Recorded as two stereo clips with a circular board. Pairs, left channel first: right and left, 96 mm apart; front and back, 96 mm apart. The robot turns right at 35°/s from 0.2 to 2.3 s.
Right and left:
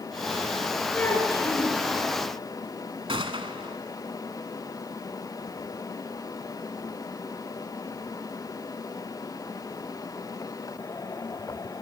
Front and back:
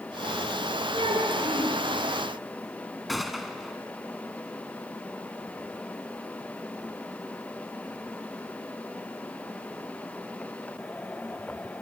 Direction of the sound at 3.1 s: 90° left.